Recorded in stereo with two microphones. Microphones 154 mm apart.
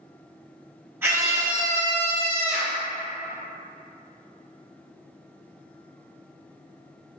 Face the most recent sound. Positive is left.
turn(degrees=-50)  # may be behind; listen again after turning